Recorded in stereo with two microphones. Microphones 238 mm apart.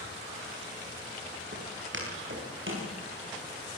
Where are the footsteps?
50° right (ahead or behind), 9.5 m; by 2.9 s 55° right (ahead or behind), 11 m.